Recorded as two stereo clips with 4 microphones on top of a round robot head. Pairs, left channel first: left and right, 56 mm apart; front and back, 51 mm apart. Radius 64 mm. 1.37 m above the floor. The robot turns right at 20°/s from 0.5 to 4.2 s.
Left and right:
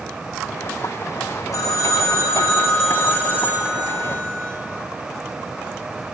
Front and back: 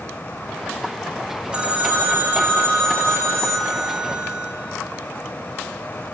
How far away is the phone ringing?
About 2.5 m.